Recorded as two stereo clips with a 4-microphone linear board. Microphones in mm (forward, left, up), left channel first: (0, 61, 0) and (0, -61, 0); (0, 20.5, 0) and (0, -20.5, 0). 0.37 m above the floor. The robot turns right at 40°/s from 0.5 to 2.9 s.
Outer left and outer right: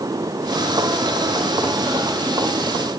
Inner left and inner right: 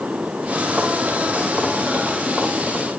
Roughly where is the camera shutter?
I don't hear a camera shutter.